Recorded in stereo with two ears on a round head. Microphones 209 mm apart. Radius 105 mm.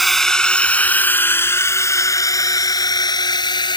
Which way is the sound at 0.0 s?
Centre (ahead or behind).